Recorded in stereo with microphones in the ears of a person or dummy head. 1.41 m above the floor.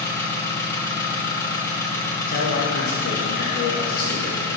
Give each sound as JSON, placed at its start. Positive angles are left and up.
{"t": 0.0, "sound": "an engine running", "side_deg": 15, "distance_m": 1.6}
{"t": 2.3, "sound": "a man speaking", "side_deg": 55, "distance_m": 1.9}